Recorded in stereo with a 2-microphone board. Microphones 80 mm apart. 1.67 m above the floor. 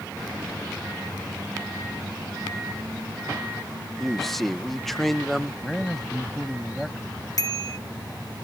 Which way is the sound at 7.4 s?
50° left (ahead or behind).